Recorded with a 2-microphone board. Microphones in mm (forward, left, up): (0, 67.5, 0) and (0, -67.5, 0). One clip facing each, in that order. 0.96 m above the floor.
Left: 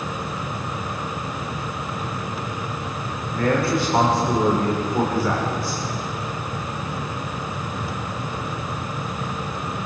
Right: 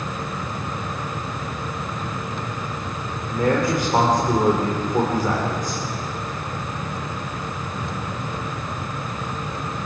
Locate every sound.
3.3 s a man speaking: 15° right (ahead or behind), 4 m